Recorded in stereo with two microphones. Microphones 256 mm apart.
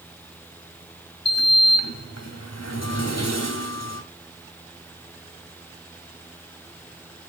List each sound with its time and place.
1.2 s a sliding door: 80° left, 2.5 m